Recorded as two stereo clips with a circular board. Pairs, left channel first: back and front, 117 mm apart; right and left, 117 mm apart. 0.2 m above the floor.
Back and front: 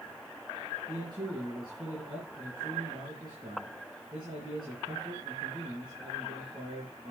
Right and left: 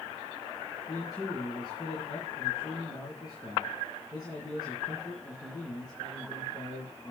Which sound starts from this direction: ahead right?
A man speaking, at 0.9 s.